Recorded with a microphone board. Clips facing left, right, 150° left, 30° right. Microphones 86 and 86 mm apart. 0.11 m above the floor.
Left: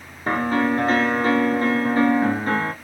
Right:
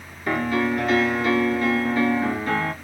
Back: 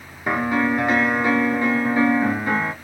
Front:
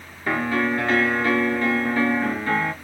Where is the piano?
85° left, 0.7 m.